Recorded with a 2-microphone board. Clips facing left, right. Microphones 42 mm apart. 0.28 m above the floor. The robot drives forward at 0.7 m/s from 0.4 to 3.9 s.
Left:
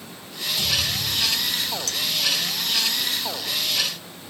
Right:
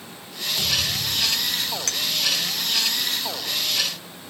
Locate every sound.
0.6 s a thud: 60° right (ahead or behind), 5 m; by 1.9 s 75° right (ahead or behind), 4.5 m
1.9 s a clink: 50° right (ahead or behind), 0.8 m